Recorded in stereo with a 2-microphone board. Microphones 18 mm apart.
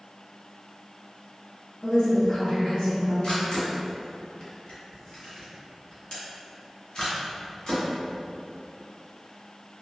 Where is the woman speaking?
60° left (ahead or behind), 1.8 m; by 3.1 s 75° left (ahead or behind), 2.5 m.